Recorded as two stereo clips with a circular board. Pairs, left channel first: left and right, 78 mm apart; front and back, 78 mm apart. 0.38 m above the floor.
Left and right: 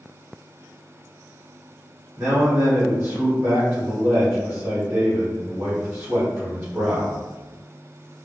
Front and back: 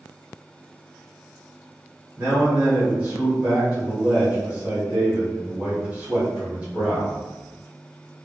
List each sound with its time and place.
2.2 s a man speaking: 120° right, 1.5 m